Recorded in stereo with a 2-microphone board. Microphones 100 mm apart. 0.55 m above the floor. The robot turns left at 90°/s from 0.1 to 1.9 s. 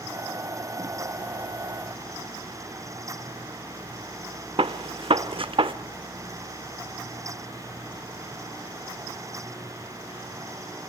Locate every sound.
4.6 s a gunshot: 60° right (ahead or behind), 0.7 m